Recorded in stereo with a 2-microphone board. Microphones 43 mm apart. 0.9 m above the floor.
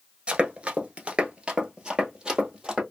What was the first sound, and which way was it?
Running footsteps, 25° right (ahead or behind).